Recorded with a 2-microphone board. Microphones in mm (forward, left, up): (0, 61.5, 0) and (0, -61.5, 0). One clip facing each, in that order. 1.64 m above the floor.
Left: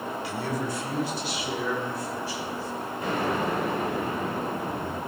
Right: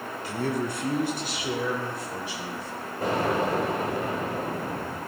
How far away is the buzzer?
I don't hear a buzzer.